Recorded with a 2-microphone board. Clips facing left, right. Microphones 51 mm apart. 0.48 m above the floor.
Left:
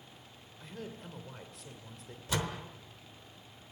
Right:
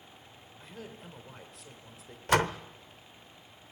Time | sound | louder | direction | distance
0.6 | a man speaking | left 2 dB | 5° right (ahead or behind) | 1.9 m
2.3 | a door slam | right 9 dB | 55° right (ahead or behind) | 0.9 m